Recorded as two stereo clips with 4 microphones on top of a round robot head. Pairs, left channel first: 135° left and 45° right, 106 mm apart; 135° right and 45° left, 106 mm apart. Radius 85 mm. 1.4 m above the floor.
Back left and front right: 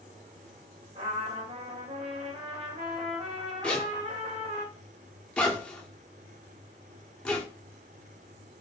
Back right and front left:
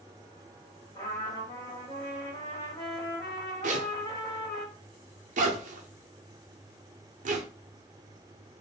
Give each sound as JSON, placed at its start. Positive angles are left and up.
{"t": 0.9, "sound": "a trumpet", "azimuth_deg": -75, "distance_m": 1.1}
{"t": 3.6, "sound": "a zipper", "azimuth_deg": 55, "distance_m": 0.8}